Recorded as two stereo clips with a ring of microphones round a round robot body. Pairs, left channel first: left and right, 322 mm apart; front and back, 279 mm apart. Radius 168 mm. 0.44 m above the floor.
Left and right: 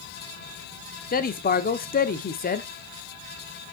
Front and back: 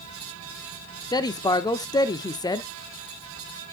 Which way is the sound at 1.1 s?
65° left.